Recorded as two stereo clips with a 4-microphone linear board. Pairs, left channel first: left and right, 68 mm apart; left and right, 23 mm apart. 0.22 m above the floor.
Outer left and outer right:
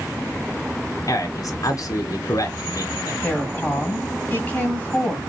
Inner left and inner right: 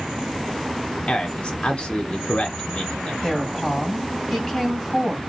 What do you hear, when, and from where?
1.1 s a man speaking: 55° left (ahead or behind), 1.6 m
3.2 s a woman speaking: 20° left (ahead or behind), 1.7 m